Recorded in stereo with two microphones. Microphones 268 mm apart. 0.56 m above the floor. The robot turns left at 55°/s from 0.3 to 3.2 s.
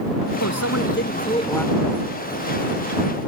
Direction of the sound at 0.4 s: 75° left.